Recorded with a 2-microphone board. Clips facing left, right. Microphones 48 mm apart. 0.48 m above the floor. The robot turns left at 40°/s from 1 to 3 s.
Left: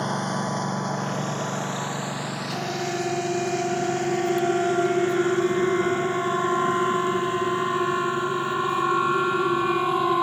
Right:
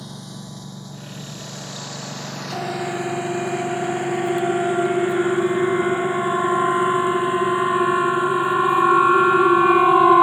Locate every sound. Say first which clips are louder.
0.0 s a lawn mower: left 11 dB; 60° left (ahead or behind); by 10.2 s 10° right (ahead or behind)
2.5 s a siren: right 4 dB; 25° right (ahead or behind); by 10.2 s 40° right (ahead or behind)